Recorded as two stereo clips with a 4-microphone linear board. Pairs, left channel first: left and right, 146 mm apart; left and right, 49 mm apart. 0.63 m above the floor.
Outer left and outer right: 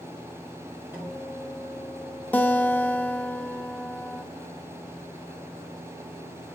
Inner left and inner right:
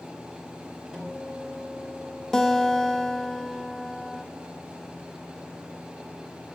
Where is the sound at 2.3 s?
10° left (ahead or behind), 0.5 m.